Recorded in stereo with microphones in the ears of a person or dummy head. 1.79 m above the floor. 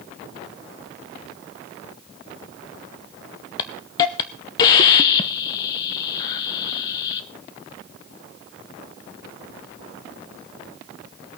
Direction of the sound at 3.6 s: 15° left (ahead or behind).